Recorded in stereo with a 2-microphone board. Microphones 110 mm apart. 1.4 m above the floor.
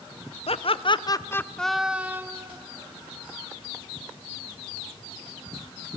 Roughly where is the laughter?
Left.